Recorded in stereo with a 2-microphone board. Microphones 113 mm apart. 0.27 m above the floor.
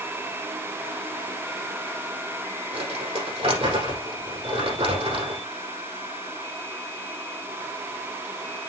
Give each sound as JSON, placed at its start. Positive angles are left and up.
{"t": 2.7, "sound": "crumpling", "side_deg": -65, "distance_m": 6.5}